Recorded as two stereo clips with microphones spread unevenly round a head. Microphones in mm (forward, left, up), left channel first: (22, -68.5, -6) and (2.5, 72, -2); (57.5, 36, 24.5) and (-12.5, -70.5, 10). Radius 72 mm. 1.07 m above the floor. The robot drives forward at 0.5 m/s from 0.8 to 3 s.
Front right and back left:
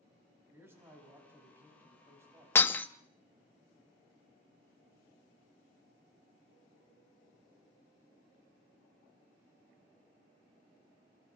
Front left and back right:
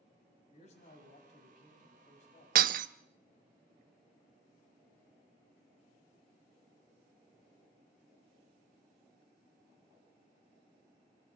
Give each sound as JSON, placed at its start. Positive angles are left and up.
{"t": 0.5, "sound": "a man speaking", "azimuth_deg": 25, "distance_m": 8.5}
{"t": 2.5, "sound": "breaking glass", "azimuth_deg": -155, "distance_m": 0.6}